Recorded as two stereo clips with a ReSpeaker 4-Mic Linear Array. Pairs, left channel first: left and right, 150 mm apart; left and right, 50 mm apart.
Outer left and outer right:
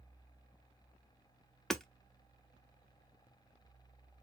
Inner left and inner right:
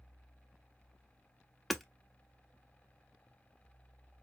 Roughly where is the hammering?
Centre.